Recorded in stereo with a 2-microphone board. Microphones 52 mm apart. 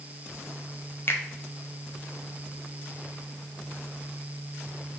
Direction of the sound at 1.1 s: 45° left (ahead or behind).